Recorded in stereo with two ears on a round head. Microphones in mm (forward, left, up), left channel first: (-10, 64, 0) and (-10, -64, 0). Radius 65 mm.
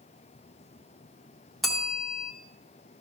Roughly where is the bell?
Centre.